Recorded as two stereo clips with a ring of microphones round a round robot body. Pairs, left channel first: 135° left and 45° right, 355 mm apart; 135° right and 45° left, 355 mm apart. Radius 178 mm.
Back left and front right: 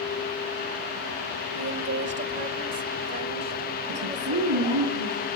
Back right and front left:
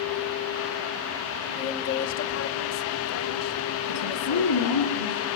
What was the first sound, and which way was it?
A woman speaking, 75° right.